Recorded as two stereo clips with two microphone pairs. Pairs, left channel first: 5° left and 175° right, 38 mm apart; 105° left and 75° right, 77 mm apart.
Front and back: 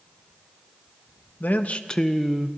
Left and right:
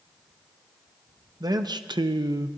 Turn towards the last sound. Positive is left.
turn(degrees=-105)